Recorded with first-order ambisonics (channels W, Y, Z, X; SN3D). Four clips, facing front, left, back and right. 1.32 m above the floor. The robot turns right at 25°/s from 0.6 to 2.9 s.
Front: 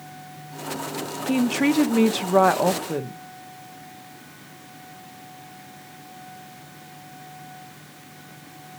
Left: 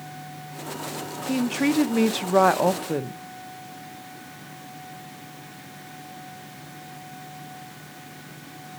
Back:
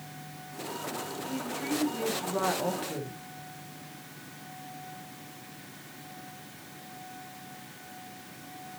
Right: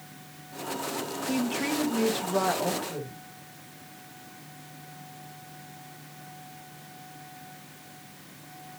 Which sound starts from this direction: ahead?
A woman speaking, at 1.3 s.